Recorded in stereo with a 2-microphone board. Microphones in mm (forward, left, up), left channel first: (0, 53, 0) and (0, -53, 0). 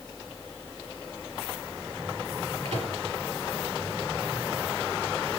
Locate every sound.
2.6 s a microwave: 75° right (ahead or behind), 5 m